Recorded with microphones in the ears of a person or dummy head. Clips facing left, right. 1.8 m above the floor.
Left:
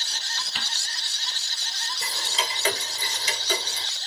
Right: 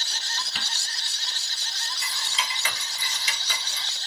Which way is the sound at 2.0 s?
35° left (ahead or behind).